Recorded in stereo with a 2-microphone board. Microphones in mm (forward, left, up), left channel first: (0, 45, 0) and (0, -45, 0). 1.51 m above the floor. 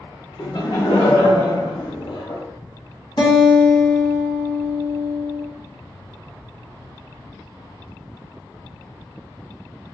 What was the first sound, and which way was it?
Laughter, 55° left (ahead or behind).